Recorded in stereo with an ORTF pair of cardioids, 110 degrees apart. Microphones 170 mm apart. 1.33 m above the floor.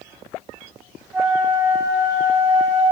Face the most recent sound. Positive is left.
turn(degrees=0)